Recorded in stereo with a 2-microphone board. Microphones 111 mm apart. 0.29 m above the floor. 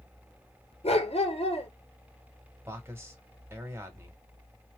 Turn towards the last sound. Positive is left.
turn(degrees=-25)  # may be behind; listen again after turning